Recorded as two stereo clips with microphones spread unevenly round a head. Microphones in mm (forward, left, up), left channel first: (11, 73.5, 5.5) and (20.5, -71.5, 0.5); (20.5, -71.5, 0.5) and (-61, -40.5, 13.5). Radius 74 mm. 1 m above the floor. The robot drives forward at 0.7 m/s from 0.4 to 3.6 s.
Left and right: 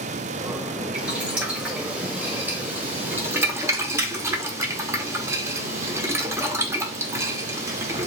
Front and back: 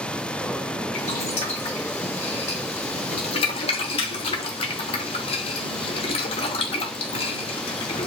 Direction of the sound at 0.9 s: 5° right.